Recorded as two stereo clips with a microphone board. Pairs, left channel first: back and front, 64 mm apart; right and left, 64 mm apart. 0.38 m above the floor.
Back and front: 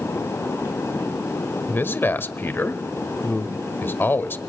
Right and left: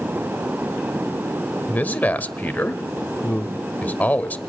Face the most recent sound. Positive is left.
turn(degrees=-145)